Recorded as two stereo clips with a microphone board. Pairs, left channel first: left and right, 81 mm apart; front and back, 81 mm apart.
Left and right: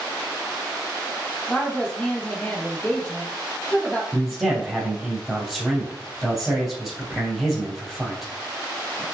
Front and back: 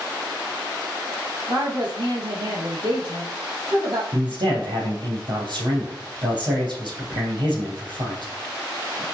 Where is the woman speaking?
165° left, 2.5 m.